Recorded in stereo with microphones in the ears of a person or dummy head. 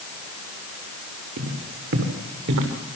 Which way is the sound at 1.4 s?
65° right (ahead or behind).